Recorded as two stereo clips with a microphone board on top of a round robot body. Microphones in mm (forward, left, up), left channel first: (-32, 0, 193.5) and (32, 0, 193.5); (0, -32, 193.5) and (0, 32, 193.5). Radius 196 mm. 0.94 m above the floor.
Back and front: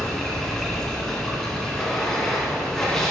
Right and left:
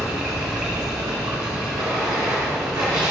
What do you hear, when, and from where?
0.0 s running water: 105° left, 1.3 m